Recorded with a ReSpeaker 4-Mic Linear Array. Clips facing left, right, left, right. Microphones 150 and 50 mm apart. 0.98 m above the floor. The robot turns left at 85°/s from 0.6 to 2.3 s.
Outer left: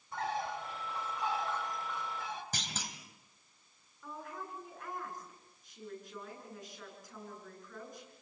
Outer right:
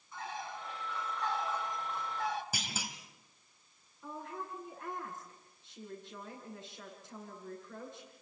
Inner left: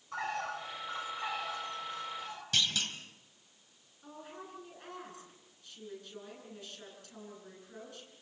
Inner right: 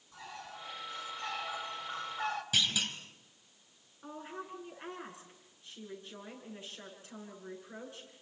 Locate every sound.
0.1 s a bird: 65° left, 2 m; by 2.4 s 80° right, 2 m
2.5 s a clunk: 10° right (ahead or behind), 2.5 m
4.0 s a woman speaking: 25° right (ahead or behind), 10 m